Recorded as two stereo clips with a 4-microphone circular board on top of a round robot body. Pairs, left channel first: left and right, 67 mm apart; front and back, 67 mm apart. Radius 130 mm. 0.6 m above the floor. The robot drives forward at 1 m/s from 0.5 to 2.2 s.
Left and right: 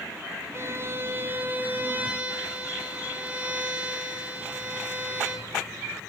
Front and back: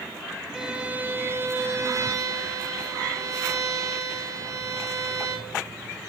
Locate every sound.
0.5 s a violin: 100° right, 1.4 m; by 5.6 s 155° right, 2.5 m